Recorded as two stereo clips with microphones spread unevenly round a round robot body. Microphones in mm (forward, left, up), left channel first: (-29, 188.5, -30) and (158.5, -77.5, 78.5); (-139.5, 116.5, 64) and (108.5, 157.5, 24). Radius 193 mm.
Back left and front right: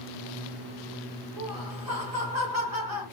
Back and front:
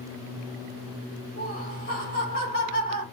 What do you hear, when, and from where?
1.4 s laughter: 110° right, 1.9 m